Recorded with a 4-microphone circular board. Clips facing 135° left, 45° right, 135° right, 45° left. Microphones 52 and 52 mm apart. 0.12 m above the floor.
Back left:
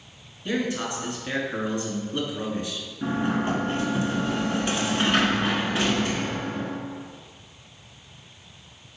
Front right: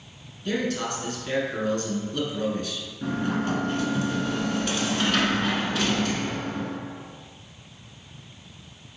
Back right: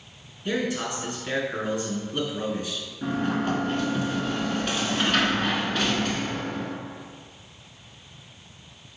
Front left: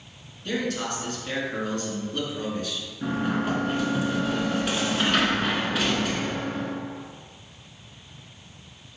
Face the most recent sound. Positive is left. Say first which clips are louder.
# back left 2 dB, even
turn(degrees=125)